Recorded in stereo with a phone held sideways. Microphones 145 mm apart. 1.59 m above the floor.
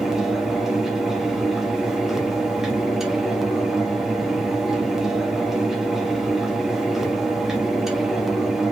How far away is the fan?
About 1.3 m.